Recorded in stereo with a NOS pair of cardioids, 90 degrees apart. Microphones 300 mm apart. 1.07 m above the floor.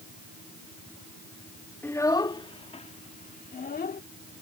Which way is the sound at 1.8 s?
5° left.